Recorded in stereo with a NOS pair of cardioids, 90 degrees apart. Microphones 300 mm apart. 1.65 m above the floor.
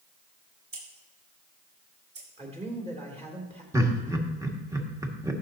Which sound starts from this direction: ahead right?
Scissors, at 0.7 s.